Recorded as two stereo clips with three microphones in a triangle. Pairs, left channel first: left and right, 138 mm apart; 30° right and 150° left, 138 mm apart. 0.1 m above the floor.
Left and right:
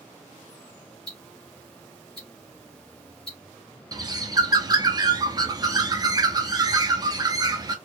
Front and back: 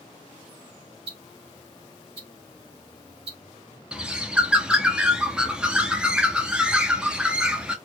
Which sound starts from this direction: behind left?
Ticking, at 1.1 s.